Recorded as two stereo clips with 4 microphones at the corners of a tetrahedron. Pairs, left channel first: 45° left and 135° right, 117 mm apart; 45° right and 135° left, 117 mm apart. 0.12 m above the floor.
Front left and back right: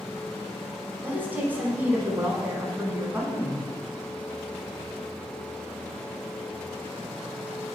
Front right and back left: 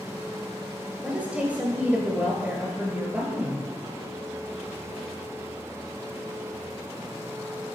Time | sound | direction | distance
1.0 | a woman speaking | 175° right | 1.1 m